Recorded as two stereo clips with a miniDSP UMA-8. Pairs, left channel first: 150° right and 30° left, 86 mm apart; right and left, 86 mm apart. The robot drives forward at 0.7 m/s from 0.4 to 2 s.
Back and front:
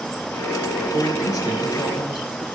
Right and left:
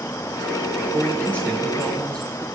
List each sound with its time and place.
0.9 s a man speaking: 150° right, 1.4 m; by 2.5 s 165° right, 1.9 m